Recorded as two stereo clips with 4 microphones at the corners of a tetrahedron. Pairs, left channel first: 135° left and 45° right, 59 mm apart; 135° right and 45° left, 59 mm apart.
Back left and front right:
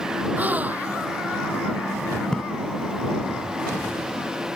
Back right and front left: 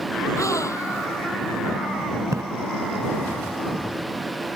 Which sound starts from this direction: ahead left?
A splash, at 2.3 s.